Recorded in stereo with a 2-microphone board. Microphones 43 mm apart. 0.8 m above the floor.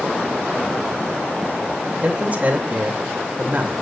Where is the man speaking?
35° right (ahead or behind), 2.5 m.